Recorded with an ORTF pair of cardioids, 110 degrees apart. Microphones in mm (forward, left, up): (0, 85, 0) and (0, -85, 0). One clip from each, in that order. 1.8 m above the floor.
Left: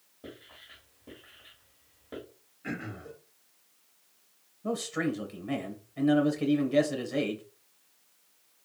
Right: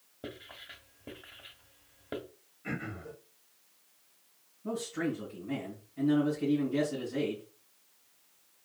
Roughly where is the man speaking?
Left.